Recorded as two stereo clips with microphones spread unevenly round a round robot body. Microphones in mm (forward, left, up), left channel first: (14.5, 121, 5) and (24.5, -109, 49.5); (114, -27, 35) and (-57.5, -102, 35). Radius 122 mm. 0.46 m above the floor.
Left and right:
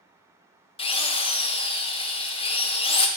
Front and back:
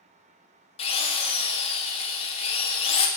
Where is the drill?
65° left, 0.9 m.